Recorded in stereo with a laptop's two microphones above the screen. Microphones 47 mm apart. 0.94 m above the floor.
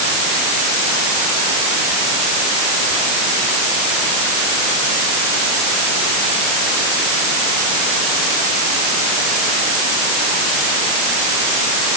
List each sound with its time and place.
Only background noise.